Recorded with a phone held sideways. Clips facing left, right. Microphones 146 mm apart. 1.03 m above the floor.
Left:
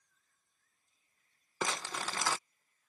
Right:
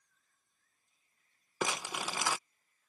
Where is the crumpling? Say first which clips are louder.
Right 1 dB; 15° right (ahead or behind).